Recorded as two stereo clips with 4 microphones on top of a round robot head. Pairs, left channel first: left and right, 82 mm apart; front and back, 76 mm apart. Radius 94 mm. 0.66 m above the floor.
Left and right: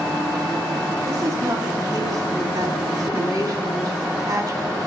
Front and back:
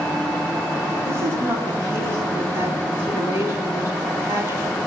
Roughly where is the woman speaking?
Behind right.